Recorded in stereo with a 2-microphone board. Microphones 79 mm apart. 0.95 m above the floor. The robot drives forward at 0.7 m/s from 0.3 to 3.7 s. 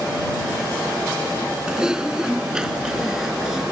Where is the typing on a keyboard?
10° right (ahead or behind).